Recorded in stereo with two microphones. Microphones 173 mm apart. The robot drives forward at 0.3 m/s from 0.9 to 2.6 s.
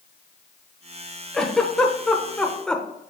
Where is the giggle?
5° left (ahead or behind), 1.1 m.